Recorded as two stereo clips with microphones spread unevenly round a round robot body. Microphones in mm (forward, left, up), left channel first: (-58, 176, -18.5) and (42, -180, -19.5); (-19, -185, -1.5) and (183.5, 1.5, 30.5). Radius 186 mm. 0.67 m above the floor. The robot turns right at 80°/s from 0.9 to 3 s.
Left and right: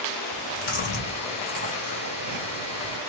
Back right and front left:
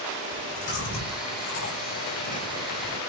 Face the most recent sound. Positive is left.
turn(degrees=-25)